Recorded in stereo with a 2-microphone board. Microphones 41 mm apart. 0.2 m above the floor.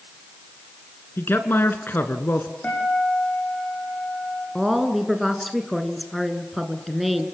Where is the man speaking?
60° left (ahead or behind), 2 m.